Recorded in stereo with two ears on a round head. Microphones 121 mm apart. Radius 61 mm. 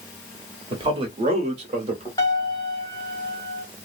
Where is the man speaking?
35° right (ahead or behind), 1.0 m; by 2.1 s 50° right (ahead or behind), 1.4 m.